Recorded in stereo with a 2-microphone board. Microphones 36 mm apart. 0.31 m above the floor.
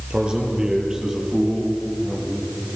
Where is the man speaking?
25° right (ahead or behind), 7 m; by 2.5 s 5° right (ahead or behind), 8.5 m.